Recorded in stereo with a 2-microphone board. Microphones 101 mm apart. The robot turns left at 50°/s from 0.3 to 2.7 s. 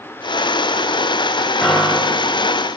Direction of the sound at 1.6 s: 5° left.